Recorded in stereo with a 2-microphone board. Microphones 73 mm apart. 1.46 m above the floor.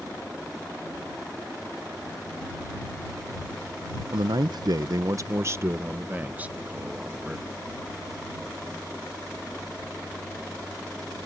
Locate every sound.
4.1 s a man speaking: 75° right (ahead or behind); by 7.6 s 10° right (ahead or behind)